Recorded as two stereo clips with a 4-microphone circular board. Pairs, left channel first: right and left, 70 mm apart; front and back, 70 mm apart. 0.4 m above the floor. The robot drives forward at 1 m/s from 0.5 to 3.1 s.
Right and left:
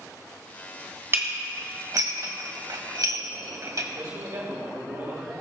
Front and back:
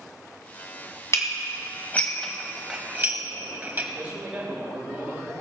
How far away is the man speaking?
About 3.5 m.